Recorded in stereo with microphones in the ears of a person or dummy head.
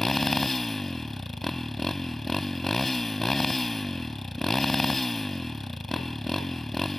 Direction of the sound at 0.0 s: Centre (ahead or behind).